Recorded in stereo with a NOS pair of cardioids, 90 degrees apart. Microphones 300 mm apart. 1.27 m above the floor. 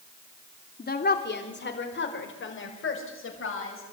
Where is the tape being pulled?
I don't hear tape being pulled.